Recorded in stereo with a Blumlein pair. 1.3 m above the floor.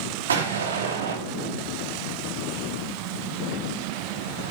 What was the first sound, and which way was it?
An explosion, 70° right.